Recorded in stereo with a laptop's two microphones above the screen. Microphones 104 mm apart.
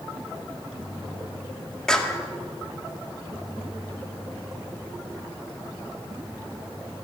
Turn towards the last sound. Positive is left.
turn(degrees=5)  # may be behind; listen again after turning